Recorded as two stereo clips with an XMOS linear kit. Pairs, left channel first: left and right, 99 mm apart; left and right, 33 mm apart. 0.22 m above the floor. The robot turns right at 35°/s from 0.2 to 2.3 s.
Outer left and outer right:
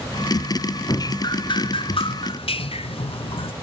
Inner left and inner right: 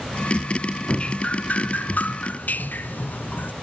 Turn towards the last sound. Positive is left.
turn(degrees=90)